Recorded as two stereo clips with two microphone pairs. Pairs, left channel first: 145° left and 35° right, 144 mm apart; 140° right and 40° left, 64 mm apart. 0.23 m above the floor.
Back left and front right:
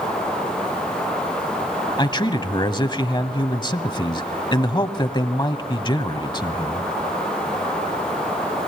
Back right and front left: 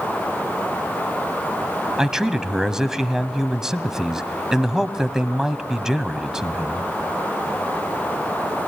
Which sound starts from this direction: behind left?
A man speaking, at 2.0 s.